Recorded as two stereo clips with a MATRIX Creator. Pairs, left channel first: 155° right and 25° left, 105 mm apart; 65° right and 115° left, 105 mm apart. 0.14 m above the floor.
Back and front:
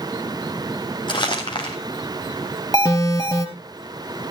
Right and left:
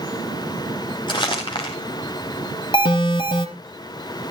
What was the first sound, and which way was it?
Crumpling, 110° right.